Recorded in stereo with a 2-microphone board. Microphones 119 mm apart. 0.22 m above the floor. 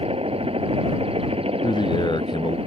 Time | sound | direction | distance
0.0 | a helicopter | 55° right (ahead or behind) | ?
1.6 | a man speaking | 40° left (ahead or behind) | ?